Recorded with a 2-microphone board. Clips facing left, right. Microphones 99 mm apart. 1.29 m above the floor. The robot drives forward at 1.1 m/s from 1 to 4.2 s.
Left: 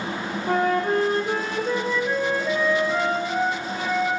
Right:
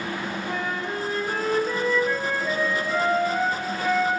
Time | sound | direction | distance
0.5 | a flute | 55° left (ahead or behind) | 0.6 m